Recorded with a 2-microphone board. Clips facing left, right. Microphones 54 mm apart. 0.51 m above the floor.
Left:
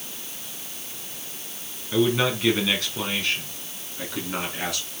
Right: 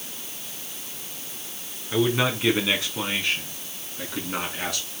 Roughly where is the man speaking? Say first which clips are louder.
Left 1 dB; centre.